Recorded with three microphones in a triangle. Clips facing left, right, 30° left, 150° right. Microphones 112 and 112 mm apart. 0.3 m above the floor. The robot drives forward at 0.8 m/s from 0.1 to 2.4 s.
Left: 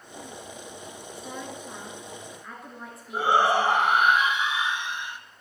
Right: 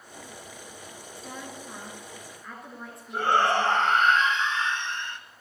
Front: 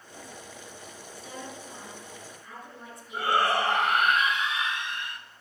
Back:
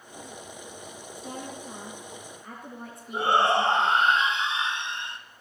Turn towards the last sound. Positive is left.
turn(degrees=165)